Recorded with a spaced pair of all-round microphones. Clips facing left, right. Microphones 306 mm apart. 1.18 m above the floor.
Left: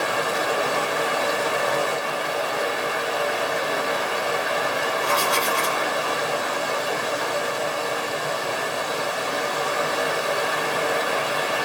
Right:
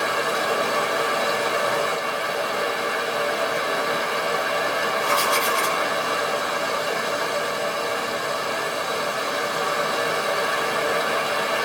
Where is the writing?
10° right (ahead or behind), 1.0 m.